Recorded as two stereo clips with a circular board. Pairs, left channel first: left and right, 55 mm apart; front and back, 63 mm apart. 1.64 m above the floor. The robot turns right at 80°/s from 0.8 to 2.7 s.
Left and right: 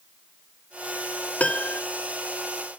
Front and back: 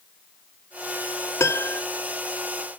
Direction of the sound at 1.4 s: 30° left.